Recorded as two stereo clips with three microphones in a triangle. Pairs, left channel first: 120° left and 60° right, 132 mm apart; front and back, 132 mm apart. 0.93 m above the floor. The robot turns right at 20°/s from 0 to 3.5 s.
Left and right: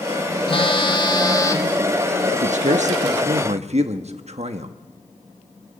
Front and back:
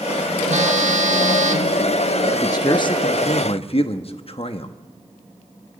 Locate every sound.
0.5 s a phone buzzing: 165° left, 1.6 m; by 1.8 s 170° right, 1.6 m
2.3 s a man speaking: 60° right, 1.0 m; by 4.7 s 35° right, 1.0 m